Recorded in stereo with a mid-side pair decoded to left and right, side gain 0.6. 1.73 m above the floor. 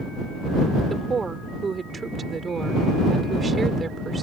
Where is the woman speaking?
25° right.